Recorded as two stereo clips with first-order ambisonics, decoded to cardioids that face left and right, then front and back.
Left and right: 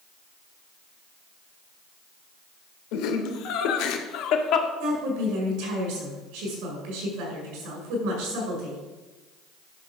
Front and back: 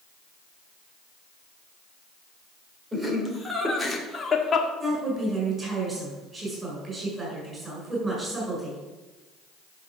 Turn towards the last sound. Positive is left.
turn(degrees=-110)